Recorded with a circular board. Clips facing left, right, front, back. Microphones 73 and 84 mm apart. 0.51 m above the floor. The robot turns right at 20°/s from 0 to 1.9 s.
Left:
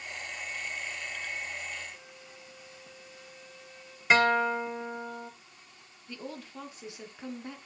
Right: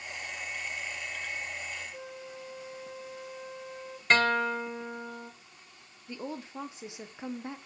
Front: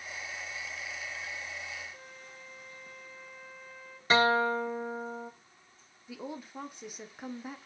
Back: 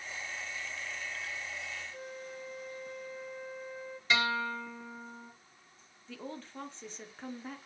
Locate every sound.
1.9 s a flute: 115° right, 0.9 m
4.1 s a guitar: 15° left, 0.6 m
6.1 s a woman speaking: 65° right, 0.9 m